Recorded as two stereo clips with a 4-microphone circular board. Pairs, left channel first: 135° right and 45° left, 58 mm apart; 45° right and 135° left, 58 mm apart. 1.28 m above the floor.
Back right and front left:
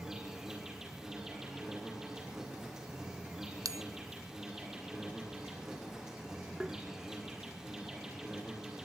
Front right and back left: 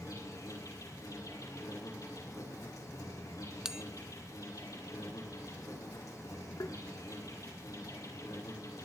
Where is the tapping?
35° right, 1.4 m.